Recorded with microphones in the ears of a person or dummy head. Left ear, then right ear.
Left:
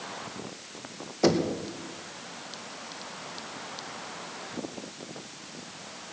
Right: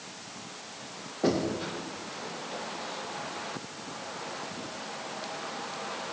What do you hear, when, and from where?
1.2 s knocking: 80° left, 1.7 m